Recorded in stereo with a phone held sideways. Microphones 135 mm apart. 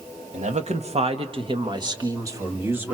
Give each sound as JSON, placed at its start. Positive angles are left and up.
{"t": 0.3, "sound": "a man speaking", "side_deg": -60, "distance_m": 1.7}